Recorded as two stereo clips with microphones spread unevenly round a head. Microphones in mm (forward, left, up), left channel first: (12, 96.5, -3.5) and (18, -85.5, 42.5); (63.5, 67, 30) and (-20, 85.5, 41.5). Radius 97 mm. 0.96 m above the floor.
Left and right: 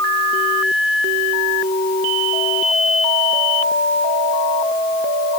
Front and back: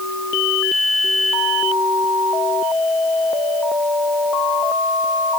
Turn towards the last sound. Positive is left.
No sound to turn to.